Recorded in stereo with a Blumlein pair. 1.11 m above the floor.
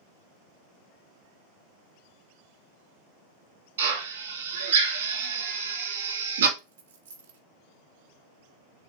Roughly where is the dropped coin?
Right.